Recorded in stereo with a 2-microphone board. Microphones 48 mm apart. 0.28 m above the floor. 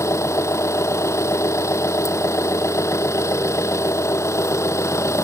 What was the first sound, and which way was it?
An engine running, 70° left (ahead or behind).